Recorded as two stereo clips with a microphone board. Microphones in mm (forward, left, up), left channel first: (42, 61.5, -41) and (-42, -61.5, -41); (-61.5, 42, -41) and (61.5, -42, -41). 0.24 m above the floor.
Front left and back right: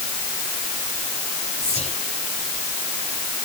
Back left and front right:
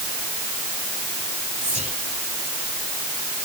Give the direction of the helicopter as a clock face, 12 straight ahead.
No helicopter in this recording.